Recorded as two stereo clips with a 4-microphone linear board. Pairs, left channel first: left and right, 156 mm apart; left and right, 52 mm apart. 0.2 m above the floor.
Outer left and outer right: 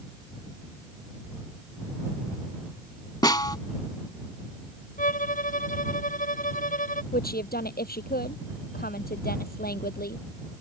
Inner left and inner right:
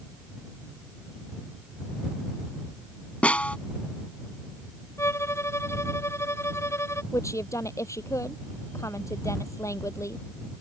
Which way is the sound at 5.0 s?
60° left (ahead or behind).